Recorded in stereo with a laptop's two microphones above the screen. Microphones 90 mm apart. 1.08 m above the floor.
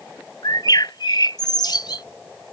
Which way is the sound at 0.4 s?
50° left (ahead or behind).